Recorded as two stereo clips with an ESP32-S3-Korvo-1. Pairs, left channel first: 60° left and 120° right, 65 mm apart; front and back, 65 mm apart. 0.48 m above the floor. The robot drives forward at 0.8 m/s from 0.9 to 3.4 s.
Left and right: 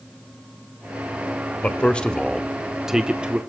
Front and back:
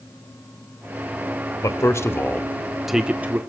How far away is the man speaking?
About 1.2 m.